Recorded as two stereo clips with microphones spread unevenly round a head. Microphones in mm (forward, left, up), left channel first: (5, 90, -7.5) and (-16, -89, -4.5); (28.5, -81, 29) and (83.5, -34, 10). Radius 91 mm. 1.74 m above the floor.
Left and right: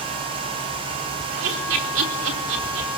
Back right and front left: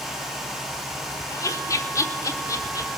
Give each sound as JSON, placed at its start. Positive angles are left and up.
{"t": 1.3, "sound": "laughter", "azimuth_deg": -105, "distance_m": 4.0}